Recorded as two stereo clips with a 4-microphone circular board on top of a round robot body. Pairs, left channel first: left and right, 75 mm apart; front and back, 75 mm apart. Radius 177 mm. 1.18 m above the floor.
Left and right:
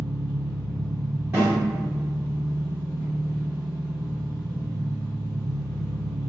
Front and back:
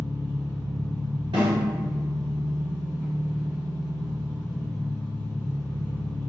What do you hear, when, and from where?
0.0 s an engine running: 40° right, 0.8 m
1.3 s a snare drum: 160° right, 1.3 m